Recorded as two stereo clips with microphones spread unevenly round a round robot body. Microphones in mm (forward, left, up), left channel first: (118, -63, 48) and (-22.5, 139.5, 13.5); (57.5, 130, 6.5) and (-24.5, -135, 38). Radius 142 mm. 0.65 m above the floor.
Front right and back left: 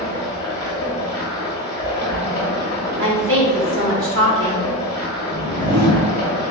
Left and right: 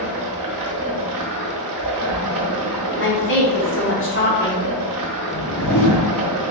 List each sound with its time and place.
0.0 s running water: 135° right, 0.7 m
3.0 s a woman speaking: 110° left, 1.3 m
5.3 s a whoosh: 110° left, 1.5 m